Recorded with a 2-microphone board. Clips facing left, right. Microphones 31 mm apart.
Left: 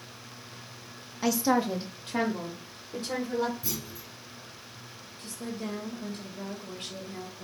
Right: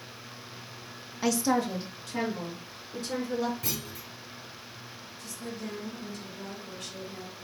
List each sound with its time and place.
1.2 s a woman speaking: centre (ahead or behind), 0.6 m; by 3.5 s 40° left (ahead or behind), 2 m
3.6 s a clunk: 80° right, 1.2 m
5.2 s a woman speaking: 50° left (ahead or behind), 1.4 m